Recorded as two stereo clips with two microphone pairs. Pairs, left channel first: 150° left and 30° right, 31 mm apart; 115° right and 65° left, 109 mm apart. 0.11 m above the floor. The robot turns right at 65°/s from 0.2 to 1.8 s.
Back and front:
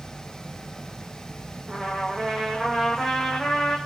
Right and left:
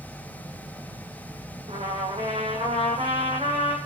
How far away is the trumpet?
About 6.5 m.